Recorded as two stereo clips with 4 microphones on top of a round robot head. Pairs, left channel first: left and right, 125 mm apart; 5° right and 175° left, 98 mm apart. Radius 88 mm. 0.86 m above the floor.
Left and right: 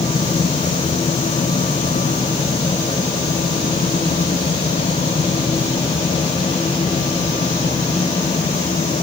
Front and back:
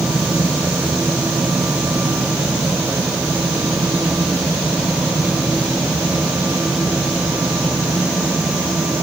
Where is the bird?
No bird in this recording.